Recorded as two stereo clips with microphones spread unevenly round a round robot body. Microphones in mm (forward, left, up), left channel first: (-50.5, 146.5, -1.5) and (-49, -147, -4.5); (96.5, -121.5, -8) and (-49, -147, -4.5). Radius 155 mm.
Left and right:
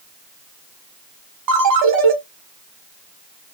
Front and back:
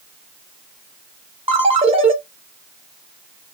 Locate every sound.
1.5 s a ringtone: 115° right, 1.4 m